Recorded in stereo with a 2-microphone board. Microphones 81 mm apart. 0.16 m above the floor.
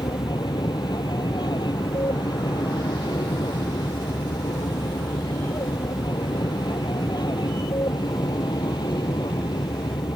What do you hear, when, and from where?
0.0 s an aircraft: 60° left (ahead or behind)